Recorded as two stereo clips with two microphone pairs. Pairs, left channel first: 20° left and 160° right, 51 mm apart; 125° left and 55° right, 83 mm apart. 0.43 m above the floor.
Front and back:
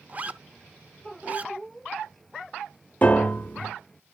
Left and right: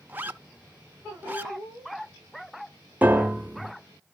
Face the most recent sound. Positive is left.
turn(degrees=-5)